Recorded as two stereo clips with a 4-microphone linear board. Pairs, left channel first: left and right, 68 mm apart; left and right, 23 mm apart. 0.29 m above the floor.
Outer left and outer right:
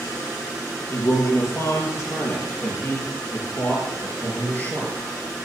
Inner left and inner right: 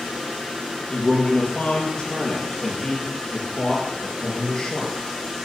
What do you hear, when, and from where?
0.9 s a man speaking: 50° left (ahead or behind), 5.5 m; by 5.5 s 20° left (ahead or behind), 4.5 m